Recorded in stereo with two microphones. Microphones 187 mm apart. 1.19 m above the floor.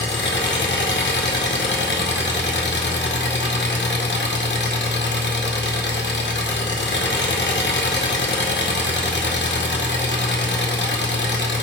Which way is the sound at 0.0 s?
75° left (ahead or behind).